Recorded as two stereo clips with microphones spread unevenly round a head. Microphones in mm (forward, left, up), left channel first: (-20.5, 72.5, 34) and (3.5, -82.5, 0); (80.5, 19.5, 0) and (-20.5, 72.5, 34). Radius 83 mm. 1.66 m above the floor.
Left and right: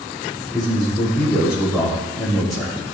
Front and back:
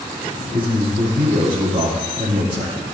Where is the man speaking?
170° right, 6.5 m.